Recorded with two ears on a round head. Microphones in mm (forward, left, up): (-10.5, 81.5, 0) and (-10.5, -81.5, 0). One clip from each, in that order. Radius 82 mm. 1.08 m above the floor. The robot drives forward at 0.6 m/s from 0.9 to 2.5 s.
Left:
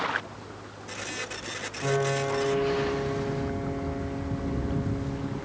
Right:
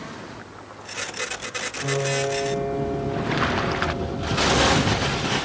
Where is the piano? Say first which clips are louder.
Right 2 dB; 85° left, 10 m.